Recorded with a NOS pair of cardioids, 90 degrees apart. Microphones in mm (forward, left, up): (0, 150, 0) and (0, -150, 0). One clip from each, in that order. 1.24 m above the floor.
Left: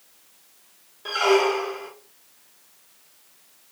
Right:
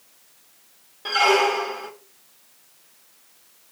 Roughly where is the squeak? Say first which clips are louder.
Right 2 dB; ahead right.